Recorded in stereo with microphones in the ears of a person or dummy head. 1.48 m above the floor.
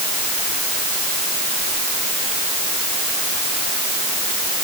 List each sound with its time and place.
Only background noise.